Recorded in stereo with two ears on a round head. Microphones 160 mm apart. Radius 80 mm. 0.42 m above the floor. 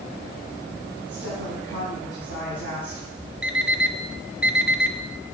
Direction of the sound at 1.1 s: 60° right (ahead or behind).